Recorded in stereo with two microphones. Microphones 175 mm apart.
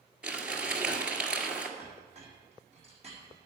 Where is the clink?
40° right (ahead or behind), 3.5 m.